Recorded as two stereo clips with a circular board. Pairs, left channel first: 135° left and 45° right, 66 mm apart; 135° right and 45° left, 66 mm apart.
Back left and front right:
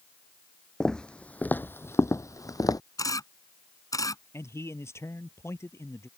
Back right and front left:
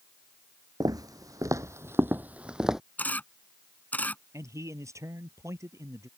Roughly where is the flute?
I don't hear a flute.